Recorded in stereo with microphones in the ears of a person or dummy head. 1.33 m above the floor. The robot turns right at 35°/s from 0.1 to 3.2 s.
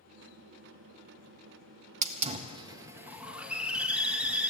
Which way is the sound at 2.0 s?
45° right.